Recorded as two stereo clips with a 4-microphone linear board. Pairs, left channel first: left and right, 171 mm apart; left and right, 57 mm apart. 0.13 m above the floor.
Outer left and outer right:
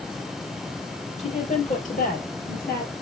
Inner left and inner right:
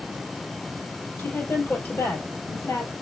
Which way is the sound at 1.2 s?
40° left (ahead or behind).